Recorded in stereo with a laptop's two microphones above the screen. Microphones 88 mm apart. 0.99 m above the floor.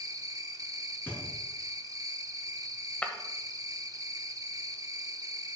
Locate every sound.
0.0 s an insect: 45° right (ahead or behind), 0.8 m
1.1 s a thud: 20° left (ahead or behind), 4.5 m
3.0 s breaking glass: 15° left (ahead or behind), 1.6 m